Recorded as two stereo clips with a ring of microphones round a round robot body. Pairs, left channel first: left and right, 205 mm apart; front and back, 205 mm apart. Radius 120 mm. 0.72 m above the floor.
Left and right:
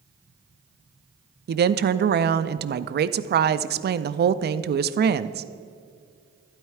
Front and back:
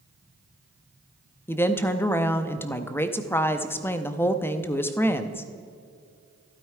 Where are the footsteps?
I don't hear footsteps.